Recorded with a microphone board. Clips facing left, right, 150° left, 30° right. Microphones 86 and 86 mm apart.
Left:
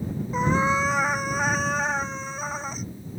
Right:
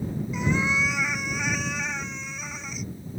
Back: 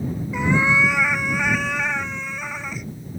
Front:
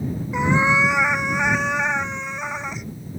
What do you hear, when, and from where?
0.3 s a cat meowing: 40° left